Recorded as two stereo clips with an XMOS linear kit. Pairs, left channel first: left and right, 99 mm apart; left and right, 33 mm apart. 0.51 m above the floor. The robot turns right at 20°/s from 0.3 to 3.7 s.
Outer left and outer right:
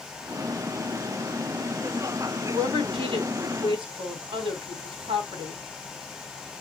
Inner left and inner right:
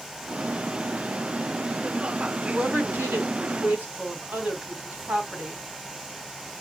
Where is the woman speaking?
75° right (ahead or behind), 3 m; by 5.7 s 55° right (ahead or behind), 3 m.